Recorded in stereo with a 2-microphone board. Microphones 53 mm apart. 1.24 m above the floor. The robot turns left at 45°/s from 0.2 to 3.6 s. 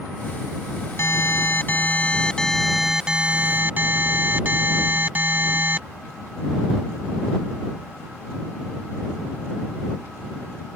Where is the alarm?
80° left; by 5.8 s 35° right.